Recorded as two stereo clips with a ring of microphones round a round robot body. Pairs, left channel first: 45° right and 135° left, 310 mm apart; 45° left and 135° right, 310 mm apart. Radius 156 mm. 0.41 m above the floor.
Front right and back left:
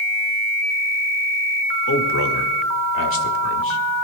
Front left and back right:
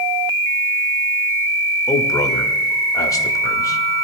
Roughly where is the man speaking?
Ahead right.